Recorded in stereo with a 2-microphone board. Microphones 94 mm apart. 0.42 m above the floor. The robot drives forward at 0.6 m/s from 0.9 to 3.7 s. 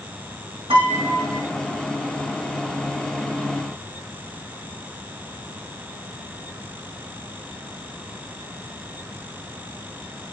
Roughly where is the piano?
Right.